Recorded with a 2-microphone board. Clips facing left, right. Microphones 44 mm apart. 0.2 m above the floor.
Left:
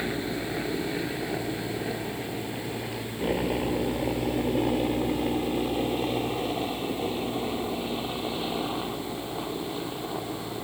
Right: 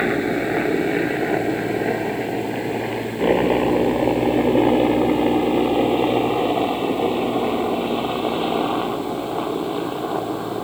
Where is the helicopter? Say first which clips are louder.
Right 10 dB; 45° right (ahead or behind); by 10.6 s 35° right (ahead or behind).